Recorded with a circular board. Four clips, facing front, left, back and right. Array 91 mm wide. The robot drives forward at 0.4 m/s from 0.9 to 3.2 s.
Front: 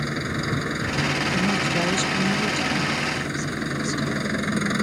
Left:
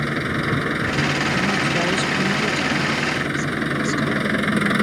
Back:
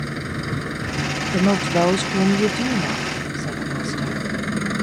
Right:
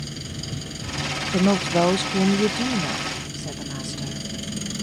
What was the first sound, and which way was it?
An engine running, 85° left.